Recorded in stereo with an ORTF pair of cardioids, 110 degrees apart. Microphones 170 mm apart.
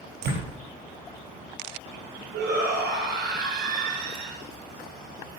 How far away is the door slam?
About 7 m.